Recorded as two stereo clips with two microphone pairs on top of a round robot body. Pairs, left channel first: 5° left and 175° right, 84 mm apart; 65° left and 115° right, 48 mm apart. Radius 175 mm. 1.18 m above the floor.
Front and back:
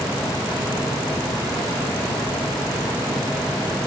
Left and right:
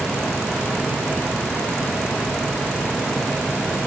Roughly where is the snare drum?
No snare drum in this recording.